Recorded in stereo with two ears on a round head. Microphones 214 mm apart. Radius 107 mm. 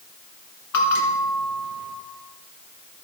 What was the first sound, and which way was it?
A bell, 75° left (ahead or behind).